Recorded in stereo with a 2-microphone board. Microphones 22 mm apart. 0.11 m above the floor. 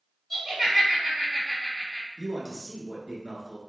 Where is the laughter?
10° right (ahead or behind), 1.9 m.